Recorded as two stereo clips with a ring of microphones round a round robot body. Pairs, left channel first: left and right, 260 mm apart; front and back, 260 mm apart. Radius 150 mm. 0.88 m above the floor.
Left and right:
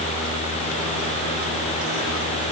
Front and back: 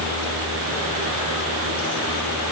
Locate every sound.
Only background noise.